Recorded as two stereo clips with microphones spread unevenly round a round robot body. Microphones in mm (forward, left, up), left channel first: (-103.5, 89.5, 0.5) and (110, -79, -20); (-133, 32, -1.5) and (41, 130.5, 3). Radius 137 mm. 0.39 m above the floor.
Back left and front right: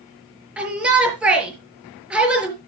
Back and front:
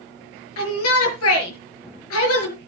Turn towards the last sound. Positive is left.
turn(degrees=-125)